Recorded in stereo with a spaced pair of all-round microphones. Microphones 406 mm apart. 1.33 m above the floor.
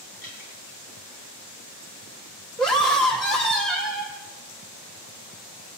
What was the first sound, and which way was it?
Dripping, 55° left (ahead or behind).